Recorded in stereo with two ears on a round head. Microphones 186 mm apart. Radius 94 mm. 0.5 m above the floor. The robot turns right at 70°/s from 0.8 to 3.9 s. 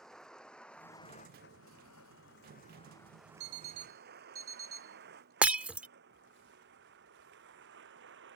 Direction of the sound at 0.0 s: Centre (ahead or behind).